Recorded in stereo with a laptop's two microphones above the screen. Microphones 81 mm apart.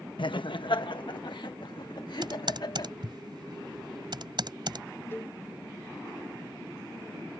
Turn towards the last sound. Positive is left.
turn(degrees=25)  # may be behind; listen again after turning